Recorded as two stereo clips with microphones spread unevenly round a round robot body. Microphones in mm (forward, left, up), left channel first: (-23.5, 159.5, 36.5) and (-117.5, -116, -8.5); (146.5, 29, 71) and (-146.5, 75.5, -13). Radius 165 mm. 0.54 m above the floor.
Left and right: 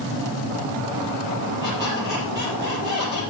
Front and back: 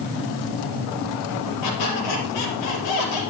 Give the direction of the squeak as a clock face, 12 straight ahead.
1 o'clock.